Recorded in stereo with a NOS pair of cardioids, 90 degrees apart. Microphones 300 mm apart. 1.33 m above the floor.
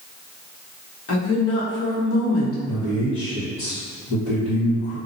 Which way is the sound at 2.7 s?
55° left.